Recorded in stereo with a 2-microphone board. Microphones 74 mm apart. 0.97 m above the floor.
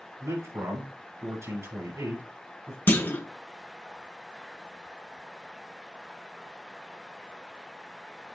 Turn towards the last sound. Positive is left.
turn(degrees=25)  # may be behind; listen again after turning